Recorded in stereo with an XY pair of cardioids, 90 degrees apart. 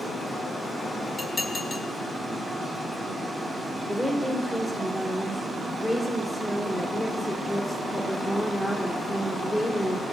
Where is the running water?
45° right, 4 m.